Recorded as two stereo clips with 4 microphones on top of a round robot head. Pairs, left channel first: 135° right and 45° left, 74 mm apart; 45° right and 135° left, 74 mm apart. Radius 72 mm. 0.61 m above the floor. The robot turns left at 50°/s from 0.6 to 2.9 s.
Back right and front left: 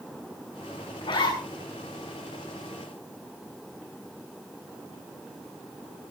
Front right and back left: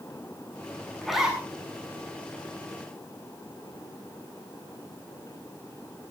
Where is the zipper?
130° right, 8 m; by 1.4 s 150° right, 8 m.